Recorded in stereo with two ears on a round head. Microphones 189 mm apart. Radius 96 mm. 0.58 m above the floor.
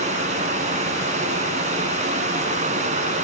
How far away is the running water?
About 2.5 m.